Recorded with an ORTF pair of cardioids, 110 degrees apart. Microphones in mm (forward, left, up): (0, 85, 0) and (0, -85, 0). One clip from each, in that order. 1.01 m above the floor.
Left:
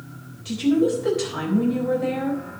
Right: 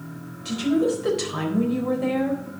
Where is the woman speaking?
20° right, 3.5 m.